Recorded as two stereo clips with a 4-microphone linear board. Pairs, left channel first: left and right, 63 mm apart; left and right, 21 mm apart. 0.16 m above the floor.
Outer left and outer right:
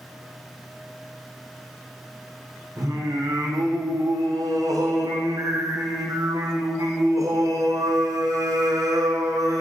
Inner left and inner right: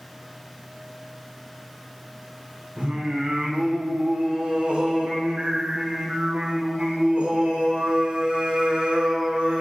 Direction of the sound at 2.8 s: 70° right (ahead or behind).